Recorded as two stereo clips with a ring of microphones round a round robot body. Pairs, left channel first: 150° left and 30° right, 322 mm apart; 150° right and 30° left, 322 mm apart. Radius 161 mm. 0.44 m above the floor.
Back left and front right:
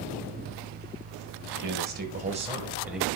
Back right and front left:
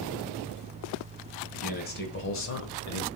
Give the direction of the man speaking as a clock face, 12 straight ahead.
3 o'clock.